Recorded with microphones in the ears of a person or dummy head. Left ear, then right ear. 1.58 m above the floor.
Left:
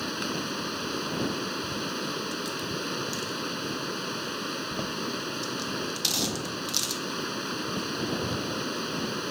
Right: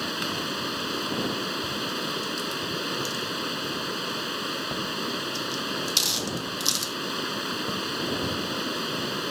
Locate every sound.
0.0 s running water: 10° right (ahead or behind)